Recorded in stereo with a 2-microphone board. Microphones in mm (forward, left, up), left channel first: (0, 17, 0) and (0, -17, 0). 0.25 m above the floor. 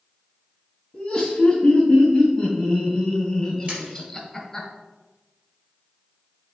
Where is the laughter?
20° left (ahead or behind), 2.5 m; by 4.7 s 5° left (ahead or behind), 1.7 m.